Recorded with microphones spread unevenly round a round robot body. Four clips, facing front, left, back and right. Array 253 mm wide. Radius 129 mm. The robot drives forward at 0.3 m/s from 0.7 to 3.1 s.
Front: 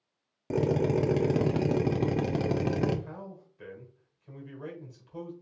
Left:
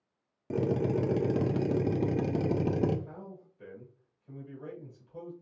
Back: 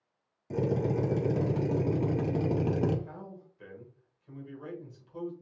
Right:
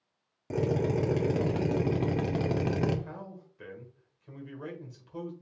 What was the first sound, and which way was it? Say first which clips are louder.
A drill: even, front 3 dB; 20° left.